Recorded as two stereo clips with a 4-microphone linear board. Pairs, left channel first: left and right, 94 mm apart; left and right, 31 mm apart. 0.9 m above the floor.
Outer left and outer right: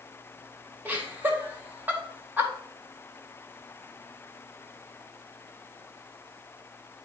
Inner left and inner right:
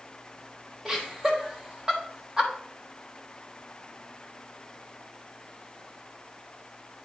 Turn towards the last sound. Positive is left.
turn(degrees=-20)  # may be behind; listen again after turning